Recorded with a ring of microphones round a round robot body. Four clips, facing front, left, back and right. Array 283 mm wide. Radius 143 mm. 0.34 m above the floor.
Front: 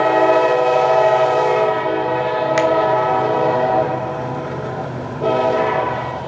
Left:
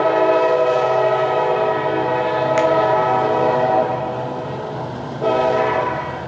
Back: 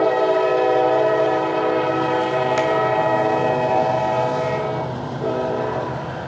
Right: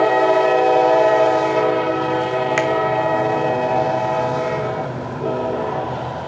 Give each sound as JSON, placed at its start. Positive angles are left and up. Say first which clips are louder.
{"t": 2.6, "sound": "a finger snap", "louder": "left 5 dB, front 7 dB", "azimuth_deg": -55, "distance_m": 0.8}